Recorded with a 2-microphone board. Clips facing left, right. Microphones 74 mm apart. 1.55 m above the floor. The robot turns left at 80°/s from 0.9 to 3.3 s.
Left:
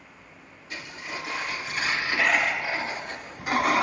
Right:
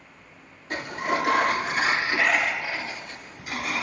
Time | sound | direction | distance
0.7 | a sliding door | 60° right | 0.5 m